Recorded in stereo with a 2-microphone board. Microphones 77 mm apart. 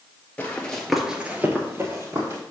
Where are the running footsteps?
20° left (ahead or behind), 1.4 m; by 2.4 s 35° right (ahead or behind), 2 m.